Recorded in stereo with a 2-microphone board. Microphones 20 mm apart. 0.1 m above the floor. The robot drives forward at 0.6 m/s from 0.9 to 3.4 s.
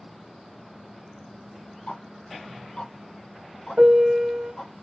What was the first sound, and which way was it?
Ticking, 55° left (ahead or behind).